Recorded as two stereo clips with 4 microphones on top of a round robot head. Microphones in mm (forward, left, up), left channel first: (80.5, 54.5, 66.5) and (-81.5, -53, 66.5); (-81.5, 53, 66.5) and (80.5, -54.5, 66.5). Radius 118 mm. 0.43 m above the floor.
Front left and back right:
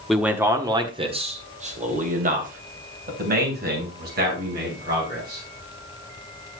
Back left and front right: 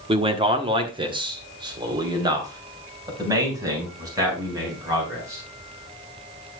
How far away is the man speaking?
About 1.3 m.